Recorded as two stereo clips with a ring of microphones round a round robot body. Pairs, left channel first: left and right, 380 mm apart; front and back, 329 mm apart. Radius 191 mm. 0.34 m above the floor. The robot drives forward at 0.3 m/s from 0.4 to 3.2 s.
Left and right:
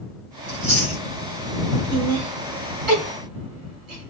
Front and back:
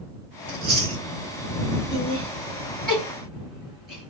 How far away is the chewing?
About 1.6 m.